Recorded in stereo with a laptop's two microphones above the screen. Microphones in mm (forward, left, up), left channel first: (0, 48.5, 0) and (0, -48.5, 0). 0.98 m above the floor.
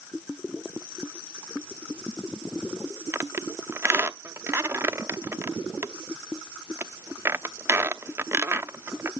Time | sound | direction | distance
3.1 | a squeak | 25° right (ahead or behind) | 0.8 m